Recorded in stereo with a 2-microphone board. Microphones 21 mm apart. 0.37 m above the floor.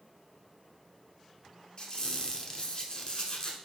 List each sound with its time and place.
1.8 s a squeak: 45° left (ahead or behind), 0.9 m